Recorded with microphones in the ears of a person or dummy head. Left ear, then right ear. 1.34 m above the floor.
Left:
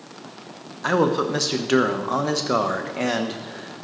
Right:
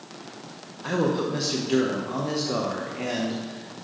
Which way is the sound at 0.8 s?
55° left (ahead or behind).